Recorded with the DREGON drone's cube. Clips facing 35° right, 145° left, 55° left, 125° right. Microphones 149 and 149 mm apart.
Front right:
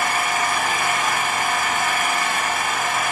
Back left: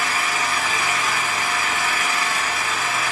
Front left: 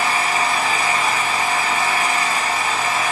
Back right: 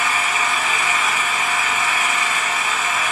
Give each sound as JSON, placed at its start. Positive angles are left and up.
{"t": 0.0, "sound": "an engine running", "azimuth_deg": 0, "distance_m": 3.0}